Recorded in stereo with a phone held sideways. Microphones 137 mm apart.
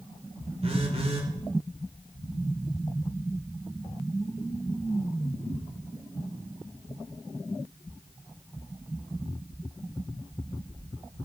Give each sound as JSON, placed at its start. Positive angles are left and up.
{"t": 0.6, "sound": "a phone buzzing", "side_deg": -45, "distance_m": 3.0}